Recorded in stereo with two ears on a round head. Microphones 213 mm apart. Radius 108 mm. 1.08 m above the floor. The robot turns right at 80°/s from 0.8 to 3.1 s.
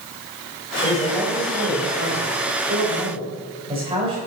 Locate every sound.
0.8 s a man speaking: 155° left, 3.5 m; by 4.2 s 25° right, 3.5 m